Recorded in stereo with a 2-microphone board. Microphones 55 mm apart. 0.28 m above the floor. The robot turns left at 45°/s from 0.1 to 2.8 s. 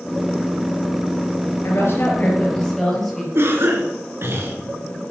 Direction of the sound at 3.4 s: 50° right (ahead or behind).